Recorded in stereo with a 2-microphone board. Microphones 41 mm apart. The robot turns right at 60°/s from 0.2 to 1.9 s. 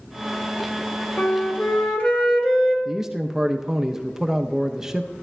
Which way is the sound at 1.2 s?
110° left.